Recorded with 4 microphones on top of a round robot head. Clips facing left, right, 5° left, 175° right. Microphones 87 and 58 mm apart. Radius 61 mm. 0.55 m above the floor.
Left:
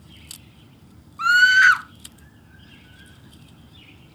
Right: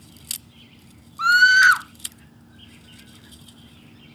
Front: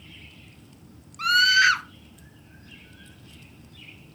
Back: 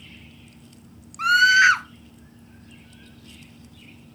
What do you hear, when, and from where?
1.2 s a scream: 140° right, 0.8 m